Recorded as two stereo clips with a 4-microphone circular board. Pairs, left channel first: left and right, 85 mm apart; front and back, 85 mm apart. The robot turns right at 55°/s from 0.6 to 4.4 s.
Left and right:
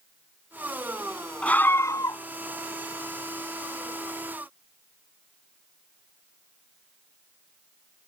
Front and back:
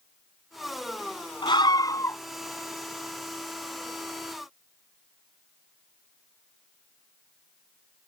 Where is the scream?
15° left; by 2.2 s 60° left.